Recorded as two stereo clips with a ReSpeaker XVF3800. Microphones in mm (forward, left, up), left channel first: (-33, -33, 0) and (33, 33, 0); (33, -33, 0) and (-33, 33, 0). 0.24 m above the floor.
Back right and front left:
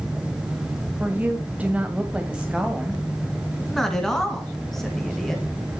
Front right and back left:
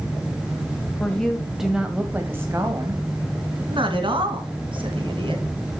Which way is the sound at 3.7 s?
140° left.